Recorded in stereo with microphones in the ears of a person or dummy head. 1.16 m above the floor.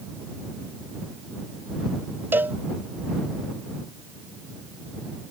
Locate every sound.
2.3 s a cowbell: 10° right (ahead or behind)